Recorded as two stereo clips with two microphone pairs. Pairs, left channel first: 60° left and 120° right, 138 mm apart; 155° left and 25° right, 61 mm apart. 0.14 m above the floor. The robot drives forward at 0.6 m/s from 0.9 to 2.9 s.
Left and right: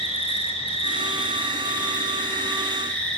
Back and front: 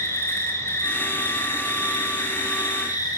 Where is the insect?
110° left, 1.4 m; by 3.2 s 140° left, 2 m.